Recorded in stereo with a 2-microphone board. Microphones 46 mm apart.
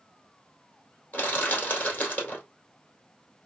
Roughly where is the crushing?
Left.